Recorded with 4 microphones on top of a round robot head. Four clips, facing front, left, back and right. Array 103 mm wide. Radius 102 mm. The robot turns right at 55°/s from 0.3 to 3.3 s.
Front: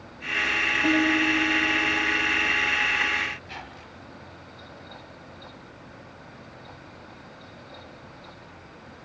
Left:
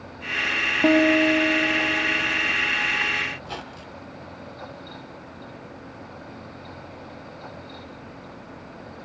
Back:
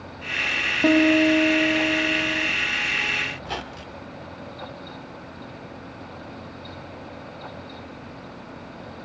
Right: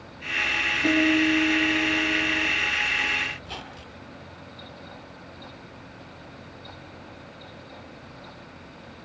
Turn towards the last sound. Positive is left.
turn(degrees=170)